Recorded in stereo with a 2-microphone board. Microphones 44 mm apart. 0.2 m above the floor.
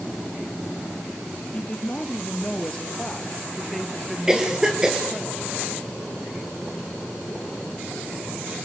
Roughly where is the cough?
Centre.